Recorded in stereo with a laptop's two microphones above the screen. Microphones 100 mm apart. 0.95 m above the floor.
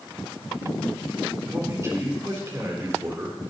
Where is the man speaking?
30° right (ahead or behind), 3 m.